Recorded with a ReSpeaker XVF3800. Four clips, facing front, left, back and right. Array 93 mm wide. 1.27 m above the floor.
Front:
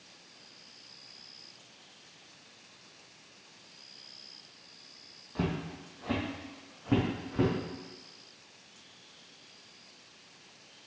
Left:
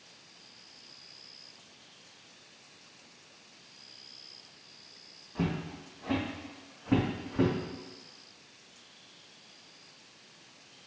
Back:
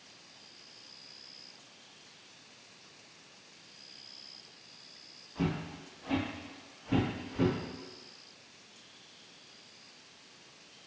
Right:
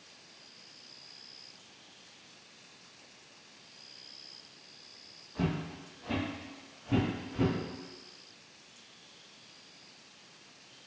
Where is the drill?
I don't hear a drill.